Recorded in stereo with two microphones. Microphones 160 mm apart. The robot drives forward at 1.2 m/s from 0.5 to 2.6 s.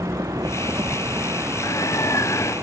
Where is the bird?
20° left (ahead or behind).